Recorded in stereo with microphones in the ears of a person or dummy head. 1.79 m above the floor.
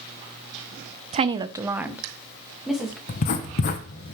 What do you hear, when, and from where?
1.1 s a woman speaking: 35° right (ahead or behind), 0.6 m; by 3.0 s centre (ahead or behind), 2 m
3.1 s writing: 35° left (ahead or behind), 1.0 m